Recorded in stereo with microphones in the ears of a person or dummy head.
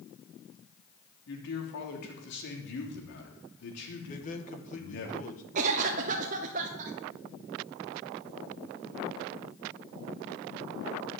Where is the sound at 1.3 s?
60° left (ahead or behind), 3.5 m.